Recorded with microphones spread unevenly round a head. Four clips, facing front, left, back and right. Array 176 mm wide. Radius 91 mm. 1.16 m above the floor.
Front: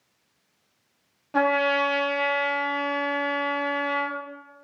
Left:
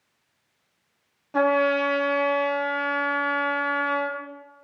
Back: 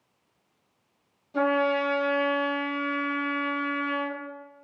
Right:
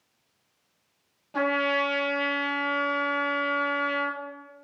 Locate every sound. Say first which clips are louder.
1.3 s a trumpet: left 5 dB, front 2 dB; 20° left, 2.5 m